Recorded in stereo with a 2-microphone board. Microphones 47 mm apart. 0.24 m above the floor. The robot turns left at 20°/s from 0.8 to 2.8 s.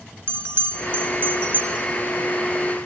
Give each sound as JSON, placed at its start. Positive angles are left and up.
{"t": 0.3, "sound": "a bell", "side_deg": -60, "distance_m": 0.6}